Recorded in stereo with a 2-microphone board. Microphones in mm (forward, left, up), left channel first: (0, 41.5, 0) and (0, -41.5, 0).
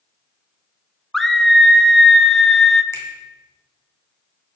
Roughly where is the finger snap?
Left.